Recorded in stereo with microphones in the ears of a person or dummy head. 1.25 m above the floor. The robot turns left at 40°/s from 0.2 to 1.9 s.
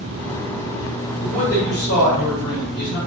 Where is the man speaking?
40° left (ahead or behind), 1.6 m; by 3.0 s 70° left (ahead or behind), 1.6 m.